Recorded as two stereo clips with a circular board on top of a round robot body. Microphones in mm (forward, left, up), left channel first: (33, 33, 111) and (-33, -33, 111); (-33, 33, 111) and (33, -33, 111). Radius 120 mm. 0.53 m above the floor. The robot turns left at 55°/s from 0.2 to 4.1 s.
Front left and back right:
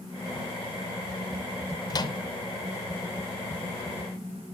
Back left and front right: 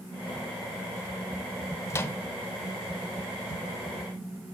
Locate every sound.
1.9 s a microwave: 80° left, 0.7 m; by 2.2 s 65° left, 0.7 m